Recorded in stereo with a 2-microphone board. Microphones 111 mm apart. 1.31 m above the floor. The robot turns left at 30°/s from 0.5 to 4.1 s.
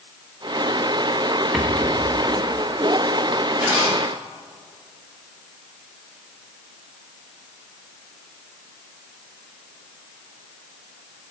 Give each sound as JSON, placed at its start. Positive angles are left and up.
{"t": 1.5, "sound": "a rattle", "side_deg": 0, "distance_m": 0.8}
{"t": 3.6, "sound": "a zipper", "side_deg": -10, "distance_m": 1.9}